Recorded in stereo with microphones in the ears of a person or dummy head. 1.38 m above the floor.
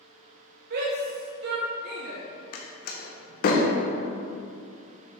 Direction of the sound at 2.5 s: 55° left (ahead or behind).